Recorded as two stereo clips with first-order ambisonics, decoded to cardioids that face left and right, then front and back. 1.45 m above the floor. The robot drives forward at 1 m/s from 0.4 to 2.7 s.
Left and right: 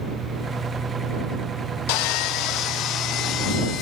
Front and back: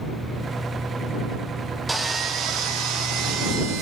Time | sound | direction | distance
1.9 | sawing | 95° left | 0.9 m